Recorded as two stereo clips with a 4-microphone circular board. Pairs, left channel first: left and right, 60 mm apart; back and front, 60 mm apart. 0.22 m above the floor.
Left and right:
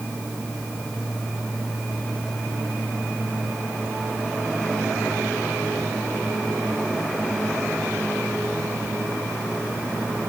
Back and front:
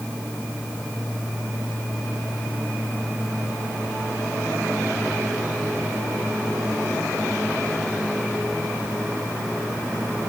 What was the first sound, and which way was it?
Only background noise.